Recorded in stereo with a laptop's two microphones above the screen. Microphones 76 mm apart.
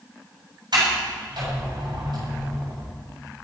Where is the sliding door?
70° right (ahead or behind), 7.5 m.